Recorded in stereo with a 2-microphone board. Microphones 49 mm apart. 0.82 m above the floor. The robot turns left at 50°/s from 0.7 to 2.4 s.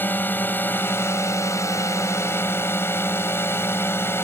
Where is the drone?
140° left; by 4.2 s 55° left.